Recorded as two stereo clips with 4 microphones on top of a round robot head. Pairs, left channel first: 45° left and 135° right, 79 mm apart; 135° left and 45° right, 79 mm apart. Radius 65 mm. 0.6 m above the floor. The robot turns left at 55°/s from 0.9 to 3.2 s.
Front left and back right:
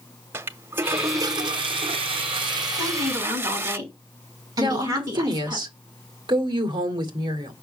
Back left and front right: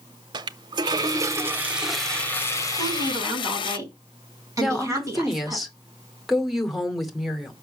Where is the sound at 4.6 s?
130° right, 2.5 m.